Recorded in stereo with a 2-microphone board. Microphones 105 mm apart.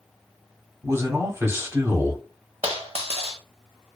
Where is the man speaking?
25° right (ahead or behind), 0.9 m.